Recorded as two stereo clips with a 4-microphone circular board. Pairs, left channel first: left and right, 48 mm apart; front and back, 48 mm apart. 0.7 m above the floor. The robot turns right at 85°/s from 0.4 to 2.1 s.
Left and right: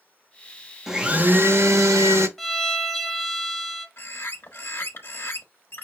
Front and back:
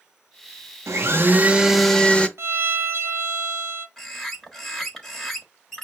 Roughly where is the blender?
Behind.